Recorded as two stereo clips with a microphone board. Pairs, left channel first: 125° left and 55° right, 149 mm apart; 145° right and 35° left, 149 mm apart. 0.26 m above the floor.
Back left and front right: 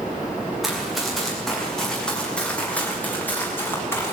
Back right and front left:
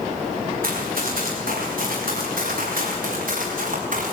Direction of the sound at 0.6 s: 35° left.